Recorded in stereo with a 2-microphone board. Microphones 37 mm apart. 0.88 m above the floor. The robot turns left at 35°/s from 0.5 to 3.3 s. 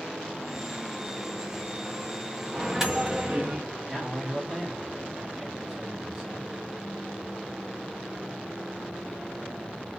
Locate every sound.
2.5 s a microwave: 5° right (ahead or behind), 0.9 m; by 3.6 s 30° right (ahead or behind), 0.9 m
3.9 s a man speaking: 15° right (ahead or behind), 0.8 m